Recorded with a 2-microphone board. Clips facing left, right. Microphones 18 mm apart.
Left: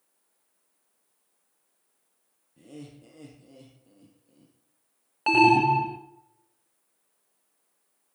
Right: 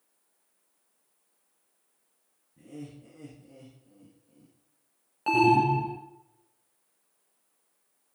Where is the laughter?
50° left (ahead or behind), 3.5 m.